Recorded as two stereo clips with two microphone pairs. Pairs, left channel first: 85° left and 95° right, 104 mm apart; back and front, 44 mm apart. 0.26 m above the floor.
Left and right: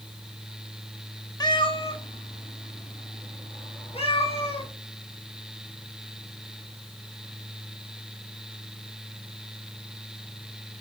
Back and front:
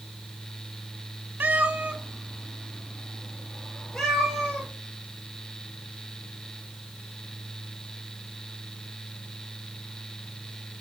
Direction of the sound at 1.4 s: 40° left.